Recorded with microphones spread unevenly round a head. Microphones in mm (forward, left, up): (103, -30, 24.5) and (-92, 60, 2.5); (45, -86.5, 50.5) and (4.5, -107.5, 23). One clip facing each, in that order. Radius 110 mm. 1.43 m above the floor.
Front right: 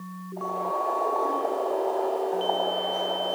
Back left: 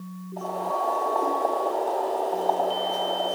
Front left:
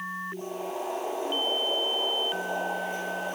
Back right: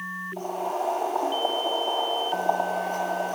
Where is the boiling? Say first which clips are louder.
Back left 1 dB, back right 5 dB; straight behind, 3.5 m.